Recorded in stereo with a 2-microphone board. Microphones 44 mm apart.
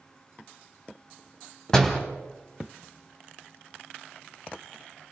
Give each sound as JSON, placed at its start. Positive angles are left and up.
{"t": 1.7, "sound": "a door slam", "side_deg": 15, "distance_m": 2.5}